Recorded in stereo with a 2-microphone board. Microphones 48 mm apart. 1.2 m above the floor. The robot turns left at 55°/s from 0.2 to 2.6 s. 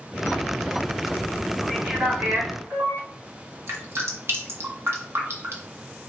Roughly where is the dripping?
Right.